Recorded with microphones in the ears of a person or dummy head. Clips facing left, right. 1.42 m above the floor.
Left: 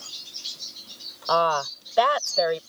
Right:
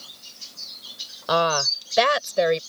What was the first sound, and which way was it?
A woman speaking, 20° right (ahead or behind).